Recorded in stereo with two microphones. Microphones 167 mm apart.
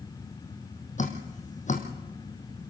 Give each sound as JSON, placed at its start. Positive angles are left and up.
{"t": 1.0, "sound": "dripping", "side_deg": 45, "distance_m": 3.0}